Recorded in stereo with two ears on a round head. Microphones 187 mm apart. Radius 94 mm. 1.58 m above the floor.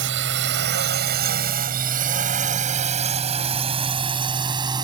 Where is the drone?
65° right (ahead or behind); by 4.8 s 20° right (ahead or behind).